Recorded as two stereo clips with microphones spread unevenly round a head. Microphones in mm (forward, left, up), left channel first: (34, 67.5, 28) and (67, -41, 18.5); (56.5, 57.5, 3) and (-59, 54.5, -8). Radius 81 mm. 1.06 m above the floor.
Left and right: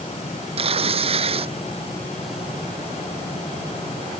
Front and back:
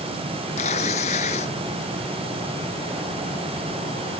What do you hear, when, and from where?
0.6 s tearing paper: 45° right